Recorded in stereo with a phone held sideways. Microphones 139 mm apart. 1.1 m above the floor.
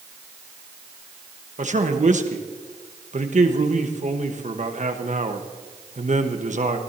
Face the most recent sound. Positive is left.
turn(degrees=-60)  # may be behind; listen again after turning